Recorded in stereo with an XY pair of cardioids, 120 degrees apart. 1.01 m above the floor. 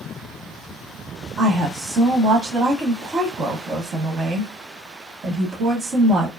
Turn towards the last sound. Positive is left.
turn(degrees=-40)